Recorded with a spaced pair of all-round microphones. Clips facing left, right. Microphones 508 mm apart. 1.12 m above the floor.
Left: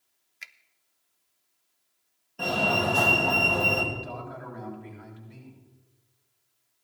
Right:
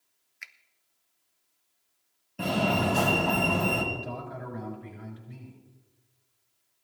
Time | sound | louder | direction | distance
0.4 | a finger snap | left 1 dB | 55° left (ahead or behind) | 0.7 m
2.4 | a fire alarm | right 1 dB | 45° right (ahead or behind) | 2 m
3.9 | a man speaking | right 1 dB | 50° right (ahead or behind) | 6 m